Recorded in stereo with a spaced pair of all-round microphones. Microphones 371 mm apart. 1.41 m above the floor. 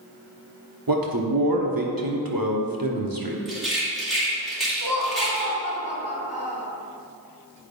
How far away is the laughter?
About 2.5 m.